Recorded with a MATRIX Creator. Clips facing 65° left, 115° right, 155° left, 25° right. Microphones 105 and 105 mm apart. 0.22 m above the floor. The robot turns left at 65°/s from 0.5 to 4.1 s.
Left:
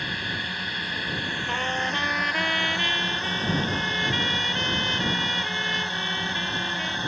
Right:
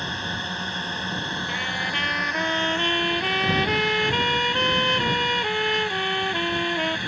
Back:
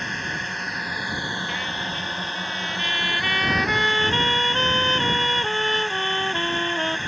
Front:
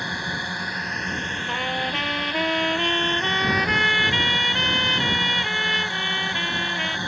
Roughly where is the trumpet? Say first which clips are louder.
Left 2 dB, front 3 dB; ahead left.